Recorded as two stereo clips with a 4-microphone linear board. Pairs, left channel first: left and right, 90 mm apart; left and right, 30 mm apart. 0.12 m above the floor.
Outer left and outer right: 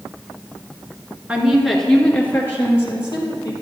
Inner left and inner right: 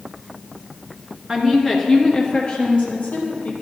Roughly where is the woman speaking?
Centre.